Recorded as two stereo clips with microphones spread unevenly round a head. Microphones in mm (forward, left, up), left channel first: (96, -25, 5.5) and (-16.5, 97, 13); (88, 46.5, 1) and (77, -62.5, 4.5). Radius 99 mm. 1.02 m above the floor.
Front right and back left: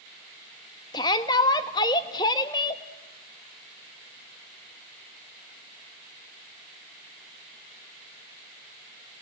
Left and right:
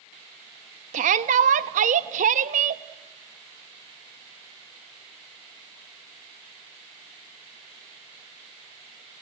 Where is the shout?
115° right, 1.0 m.